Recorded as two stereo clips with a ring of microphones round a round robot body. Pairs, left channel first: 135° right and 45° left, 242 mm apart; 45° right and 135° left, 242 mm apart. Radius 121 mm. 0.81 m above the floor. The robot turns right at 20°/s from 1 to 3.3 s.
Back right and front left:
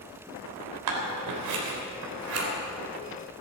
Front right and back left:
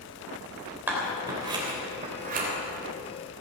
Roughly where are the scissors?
Ahead left.